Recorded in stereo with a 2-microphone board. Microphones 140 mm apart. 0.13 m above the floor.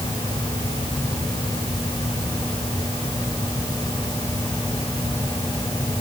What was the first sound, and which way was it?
Only background noise.